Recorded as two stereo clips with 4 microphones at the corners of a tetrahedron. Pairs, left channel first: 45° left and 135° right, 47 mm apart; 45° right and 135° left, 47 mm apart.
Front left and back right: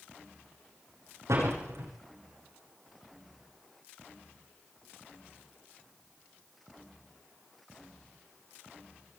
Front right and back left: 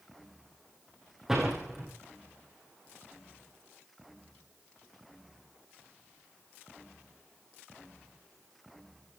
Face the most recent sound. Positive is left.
turn(degrees=-145)